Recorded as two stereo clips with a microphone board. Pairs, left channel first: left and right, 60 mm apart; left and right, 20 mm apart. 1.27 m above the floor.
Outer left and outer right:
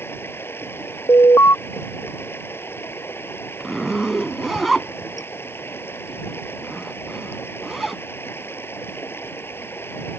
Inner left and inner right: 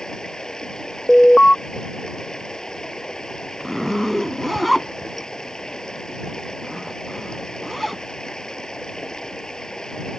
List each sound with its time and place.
0.0 s running water: 40° left (ahead or behind)
1.1 s an alarm: 60° left (ahead or behind)
3.6 s a zipper: centre (ahead or behind)